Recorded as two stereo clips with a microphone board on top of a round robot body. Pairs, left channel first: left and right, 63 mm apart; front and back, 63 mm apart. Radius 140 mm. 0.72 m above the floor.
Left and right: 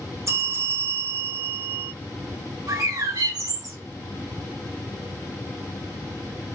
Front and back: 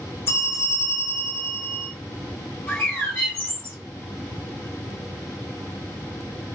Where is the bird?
65° right, 5 m.